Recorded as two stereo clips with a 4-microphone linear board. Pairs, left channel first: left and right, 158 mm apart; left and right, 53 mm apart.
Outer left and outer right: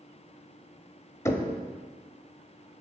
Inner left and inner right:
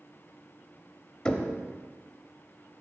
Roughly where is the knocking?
Centre.